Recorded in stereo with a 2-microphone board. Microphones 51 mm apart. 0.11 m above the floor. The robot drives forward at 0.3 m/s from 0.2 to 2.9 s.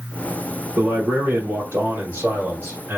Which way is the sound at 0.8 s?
50° right (ahead or behind).